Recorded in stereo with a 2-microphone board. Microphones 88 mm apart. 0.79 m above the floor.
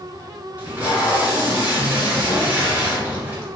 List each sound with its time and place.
0.6 s tape being pulled: 20° right (ahead or behind), 1.2 m